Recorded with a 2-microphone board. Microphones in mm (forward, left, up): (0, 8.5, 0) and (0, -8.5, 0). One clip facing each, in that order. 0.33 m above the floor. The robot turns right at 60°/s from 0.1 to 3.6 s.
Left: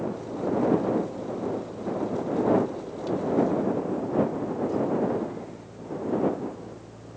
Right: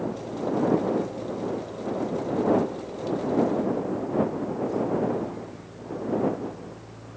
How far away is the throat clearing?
I don't hear throat clearing.